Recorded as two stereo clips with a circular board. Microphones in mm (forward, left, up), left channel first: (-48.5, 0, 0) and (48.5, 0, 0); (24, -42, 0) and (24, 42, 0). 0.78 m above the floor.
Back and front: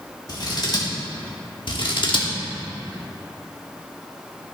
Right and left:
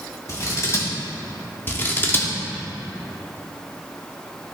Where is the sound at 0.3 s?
140° right, 2 m.